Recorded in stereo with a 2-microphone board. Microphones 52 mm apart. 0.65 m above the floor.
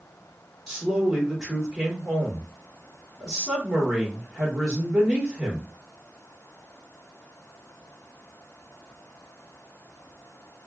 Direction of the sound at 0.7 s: Centre (ahead or behind).